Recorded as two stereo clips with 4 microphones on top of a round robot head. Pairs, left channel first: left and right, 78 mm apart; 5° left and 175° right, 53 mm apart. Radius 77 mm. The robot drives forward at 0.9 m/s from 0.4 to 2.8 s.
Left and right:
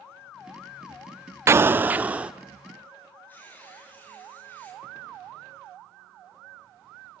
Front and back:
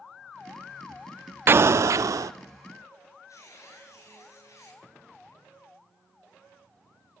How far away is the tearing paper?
About 8.5 m.